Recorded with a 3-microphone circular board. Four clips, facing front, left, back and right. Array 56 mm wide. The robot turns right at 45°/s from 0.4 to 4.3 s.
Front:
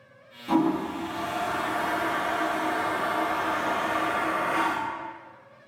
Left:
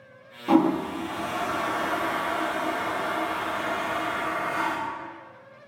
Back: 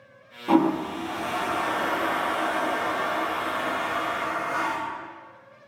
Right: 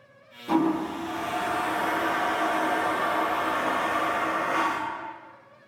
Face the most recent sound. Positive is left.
turn(degrees=-45)